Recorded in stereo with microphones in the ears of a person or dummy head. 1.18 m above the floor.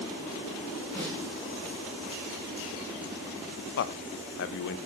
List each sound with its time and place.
0.9 s a snare drum: 10° left (ahead or behind), 7.5 m
3.8 s a man speaking: 60° left (ahead or behind), 0.8 m